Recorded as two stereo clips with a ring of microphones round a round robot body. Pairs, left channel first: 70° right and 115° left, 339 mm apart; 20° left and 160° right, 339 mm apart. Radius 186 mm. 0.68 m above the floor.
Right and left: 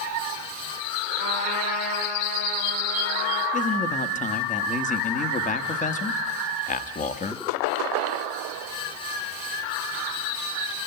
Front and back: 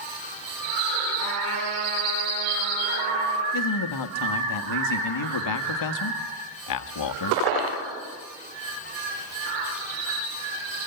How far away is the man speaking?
About 1.1 m.